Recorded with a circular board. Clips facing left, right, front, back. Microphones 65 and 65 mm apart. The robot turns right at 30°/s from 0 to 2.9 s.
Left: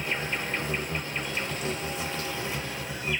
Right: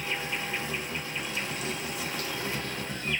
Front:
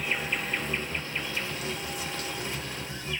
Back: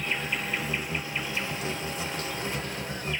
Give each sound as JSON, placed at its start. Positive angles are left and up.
{"t": 0.0, "sound": "an insect", "azimuth_deg": 75, "distance_m": 0.8}